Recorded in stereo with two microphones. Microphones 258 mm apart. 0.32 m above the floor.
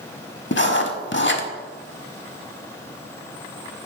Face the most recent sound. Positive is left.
turn(degrees=45)  # may be behind; listen again after turning